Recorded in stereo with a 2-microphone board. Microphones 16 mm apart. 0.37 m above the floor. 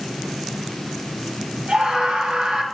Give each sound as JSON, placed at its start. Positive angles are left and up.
{"t": 1.7, "sound": "a scream", "side_deg": -75, "distance_m": 9.5}